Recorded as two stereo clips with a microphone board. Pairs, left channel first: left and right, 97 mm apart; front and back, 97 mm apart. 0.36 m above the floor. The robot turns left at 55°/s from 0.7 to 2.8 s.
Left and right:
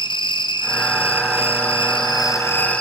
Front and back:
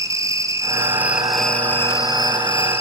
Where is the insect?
125° left, 2 m; by 2.8 s 10° left, 2 m.